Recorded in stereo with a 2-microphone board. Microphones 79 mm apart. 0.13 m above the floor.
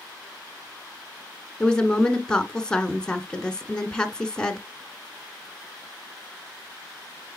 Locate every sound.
1.6 s a woman speaking: 10° left (ahead or behind), 1.1 m